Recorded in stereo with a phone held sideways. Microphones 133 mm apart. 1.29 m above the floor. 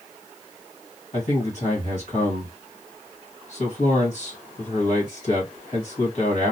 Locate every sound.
1.1 s a man speaking: 45° left (ahead or behind), 1.6 m